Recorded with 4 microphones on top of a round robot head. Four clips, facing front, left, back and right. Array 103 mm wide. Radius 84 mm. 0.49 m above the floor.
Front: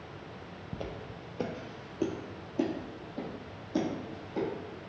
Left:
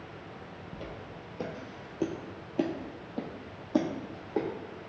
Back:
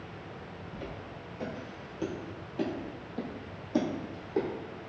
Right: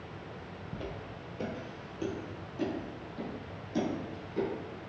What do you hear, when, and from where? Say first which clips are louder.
0.7 s footsteps: right 2 dB, front 3 dB; 5° right, 1.0 m; by 4.5 s 110° left, 1.8 m